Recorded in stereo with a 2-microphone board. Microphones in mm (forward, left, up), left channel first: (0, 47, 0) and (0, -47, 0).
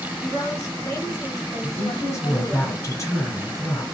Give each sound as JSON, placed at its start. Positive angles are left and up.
{"t": 0.2, "sound": "a woman speaking", "side_deg": 35, "distance_m": 2.0}
{"t": 1.6, "sound": "a woman speaking", "side_deg": 35, "distance_m": 1.6}